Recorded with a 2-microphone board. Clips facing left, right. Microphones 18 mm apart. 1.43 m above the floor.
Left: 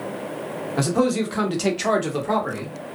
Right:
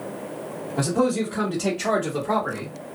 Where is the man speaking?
90° left, 1.1 m; by 2.7 s 5° left (ahead or behind), 1.1 m.